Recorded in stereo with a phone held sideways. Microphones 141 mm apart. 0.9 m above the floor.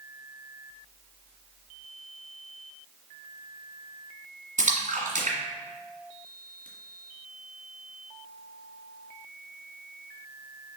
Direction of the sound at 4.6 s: 65° right (ahead or behind).